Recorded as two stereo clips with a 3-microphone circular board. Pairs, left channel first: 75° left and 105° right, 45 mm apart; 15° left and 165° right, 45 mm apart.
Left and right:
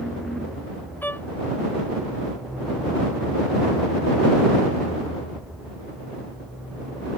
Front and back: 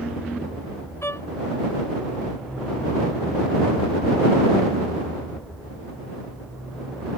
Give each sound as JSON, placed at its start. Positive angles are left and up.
{"t": 1.0, "sound": "a violin", "azimuth_deg": 30}